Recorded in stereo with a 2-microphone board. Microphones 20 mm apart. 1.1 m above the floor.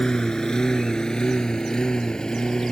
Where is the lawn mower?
40° left (ahead or behind); by 2.7 s 45° left (ahead or behind).